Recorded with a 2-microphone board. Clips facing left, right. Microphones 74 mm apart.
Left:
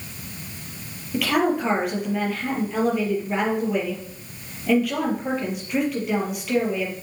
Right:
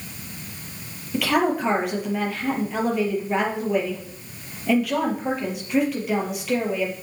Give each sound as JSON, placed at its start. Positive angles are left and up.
{"t": 1.1, "sound": "a woman speaking", "side_deg": 0, "distance_m": 4.5}